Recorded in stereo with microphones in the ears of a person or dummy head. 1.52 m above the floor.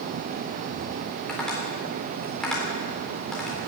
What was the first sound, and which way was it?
Tapping, centre (ahead or behind).